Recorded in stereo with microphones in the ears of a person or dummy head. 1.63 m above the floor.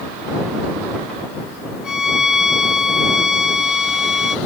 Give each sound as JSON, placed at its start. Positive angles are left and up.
{"t": 1.8, "sound": "a violin", "side_deg": 0}